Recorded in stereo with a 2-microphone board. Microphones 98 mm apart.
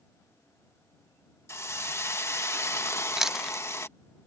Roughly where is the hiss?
Left.